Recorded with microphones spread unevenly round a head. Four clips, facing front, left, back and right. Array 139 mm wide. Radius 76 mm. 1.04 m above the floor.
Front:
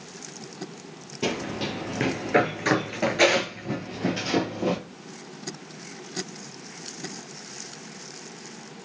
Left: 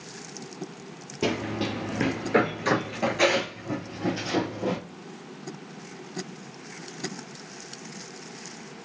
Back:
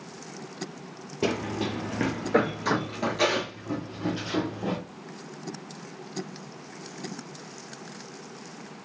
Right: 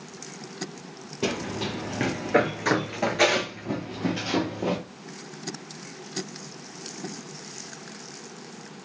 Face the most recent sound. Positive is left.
turn(degrees=-35)